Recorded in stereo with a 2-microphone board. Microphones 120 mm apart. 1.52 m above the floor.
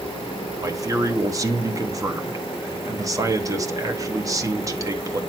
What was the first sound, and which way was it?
A man speaking, 30° right (ahead or behind).